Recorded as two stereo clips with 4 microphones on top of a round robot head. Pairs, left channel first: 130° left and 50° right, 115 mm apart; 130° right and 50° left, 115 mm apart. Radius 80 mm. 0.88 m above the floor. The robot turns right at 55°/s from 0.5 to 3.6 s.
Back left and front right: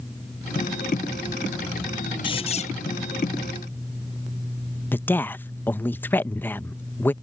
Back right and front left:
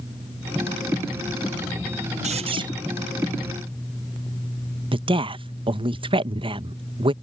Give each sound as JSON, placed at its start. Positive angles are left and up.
{"t": 2.2, "sound": "a squeak", "azimuth_deg": 80}
{"t": 4.9, "sound": "a woman speaking", "azimuth_deg": 65}